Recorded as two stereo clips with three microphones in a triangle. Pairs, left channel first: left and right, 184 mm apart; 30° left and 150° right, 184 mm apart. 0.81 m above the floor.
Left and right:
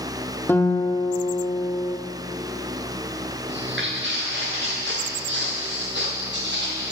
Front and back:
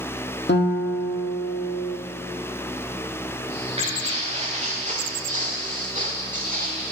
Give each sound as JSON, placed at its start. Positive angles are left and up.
{"t": 0.5, "sound": "a guitar", "azimuth_deg": 15, "distance_m": 1.0}
{"t": 3.5, "sound": "footsteps", "azimuth_deg": -90, "distance_m": 3.5}